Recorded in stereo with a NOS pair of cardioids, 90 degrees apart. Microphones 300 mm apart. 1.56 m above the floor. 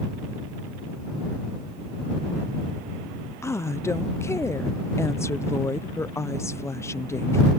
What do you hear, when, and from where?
3.4 s a woman speaking: 10° left